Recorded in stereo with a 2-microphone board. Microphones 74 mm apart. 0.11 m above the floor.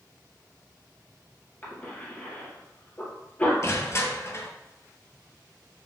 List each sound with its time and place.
1.6 s a cough: 30° left (ahead or behind), 1.8 m
3.6 s crushing: 40° left (ahead or behind), 0.6 m